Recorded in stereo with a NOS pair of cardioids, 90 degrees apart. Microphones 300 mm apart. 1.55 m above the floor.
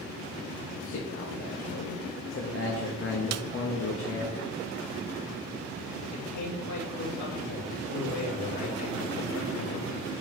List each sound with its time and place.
0.8 s a man speaking: 45° left, 3 m
3.3 s a snare drum: 60° right, 0.8 m
6.1 s a man speaking: 65° left, 4 m